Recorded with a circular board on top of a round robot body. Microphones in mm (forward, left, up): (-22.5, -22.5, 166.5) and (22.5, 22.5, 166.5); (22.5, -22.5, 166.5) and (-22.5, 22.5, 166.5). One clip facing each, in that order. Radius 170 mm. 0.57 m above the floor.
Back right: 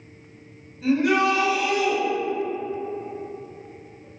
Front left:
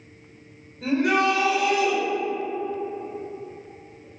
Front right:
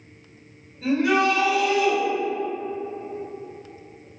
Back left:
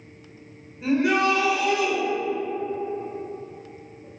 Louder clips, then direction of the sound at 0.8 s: Back right 1 dB, front right 1 dB; 70° left.